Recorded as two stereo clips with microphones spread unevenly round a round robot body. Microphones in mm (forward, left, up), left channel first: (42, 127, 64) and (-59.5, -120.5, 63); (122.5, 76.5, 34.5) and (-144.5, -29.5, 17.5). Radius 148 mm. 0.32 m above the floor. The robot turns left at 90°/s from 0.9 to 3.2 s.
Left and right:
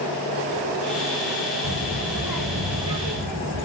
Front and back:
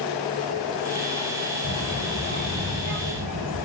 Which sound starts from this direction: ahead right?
A child speaking, at 1.6 s.